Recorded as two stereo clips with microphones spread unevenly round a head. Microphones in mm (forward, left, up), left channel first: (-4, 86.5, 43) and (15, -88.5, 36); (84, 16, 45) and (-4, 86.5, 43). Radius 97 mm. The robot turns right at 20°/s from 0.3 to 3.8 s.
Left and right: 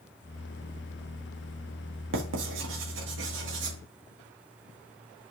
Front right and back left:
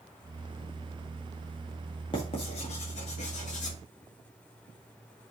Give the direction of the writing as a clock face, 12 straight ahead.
3 o'clock.